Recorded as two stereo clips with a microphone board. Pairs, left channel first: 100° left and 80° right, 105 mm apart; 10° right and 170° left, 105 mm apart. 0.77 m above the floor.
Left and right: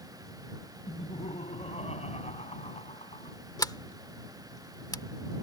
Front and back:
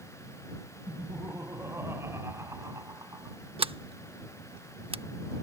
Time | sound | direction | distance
0.9 | laughter | 100° left | ?
3.6 | a sliding door | 150° left | ?